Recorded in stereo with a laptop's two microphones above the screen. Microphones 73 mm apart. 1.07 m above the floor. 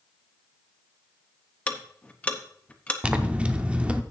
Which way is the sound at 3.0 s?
15° right (ahead or behind).